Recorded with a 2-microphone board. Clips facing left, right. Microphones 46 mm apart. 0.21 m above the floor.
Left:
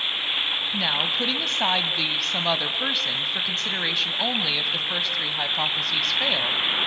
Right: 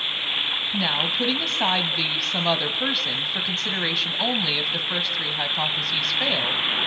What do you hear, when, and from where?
0.7 s a woman speaking: centre (ahead or behind), 1.1 m